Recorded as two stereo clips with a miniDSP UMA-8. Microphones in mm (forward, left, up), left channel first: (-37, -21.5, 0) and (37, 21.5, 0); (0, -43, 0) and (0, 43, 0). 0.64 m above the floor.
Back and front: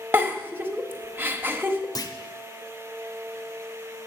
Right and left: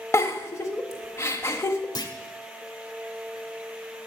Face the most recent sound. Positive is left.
turn(degrees=-120)